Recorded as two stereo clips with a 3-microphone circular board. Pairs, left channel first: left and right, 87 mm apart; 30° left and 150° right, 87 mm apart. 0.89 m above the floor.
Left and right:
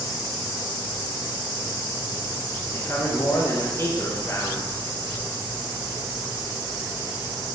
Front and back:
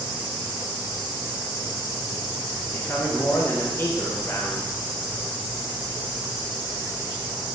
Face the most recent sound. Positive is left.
turn(degrees=70)